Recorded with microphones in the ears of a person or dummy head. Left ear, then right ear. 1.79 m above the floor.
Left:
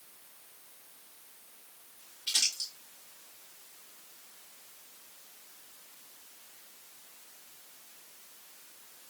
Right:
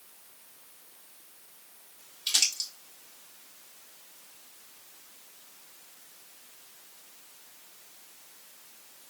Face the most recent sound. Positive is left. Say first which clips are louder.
# right 3 dB
turn(degrees=-60)  # may be behind; listen again after turning